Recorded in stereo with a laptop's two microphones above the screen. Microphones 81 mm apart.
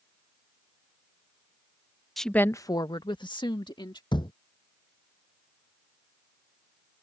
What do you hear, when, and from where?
2.2 s a woman speaking: centre (ahead or behind); by 4.0 s 70° left (ahead or behind)
4.1 s a thud: 70° left (ahead or behind)